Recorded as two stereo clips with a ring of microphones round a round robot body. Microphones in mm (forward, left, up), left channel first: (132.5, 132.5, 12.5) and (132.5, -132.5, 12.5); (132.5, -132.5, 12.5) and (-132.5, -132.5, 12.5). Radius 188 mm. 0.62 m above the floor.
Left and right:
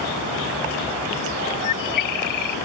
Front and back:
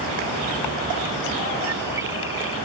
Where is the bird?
95° left.